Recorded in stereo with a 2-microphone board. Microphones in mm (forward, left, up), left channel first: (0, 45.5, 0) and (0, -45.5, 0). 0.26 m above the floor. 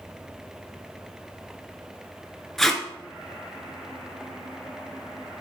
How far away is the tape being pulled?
About 0.8 m.